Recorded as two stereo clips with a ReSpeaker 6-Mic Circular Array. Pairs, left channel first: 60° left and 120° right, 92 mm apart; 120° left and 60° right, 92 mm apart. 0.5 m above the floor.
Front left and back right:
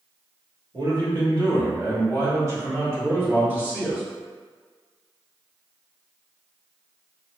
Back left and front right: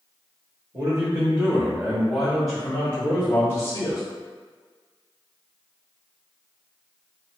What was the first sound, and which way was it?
A man speaking, 100° right.